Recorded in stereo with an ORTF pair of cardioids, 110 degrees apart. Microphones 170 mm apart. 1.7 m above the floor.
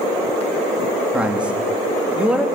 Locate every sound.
1.1 s a man speaking: 5° right, 3.5 m